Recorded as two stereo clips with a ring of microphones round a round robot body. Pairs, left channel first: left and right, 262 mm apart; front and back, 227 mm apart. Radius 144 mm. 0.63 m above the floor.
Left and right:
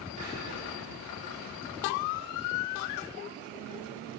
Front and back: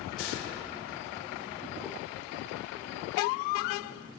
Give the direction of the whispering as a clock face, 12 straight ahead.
3 o'clock.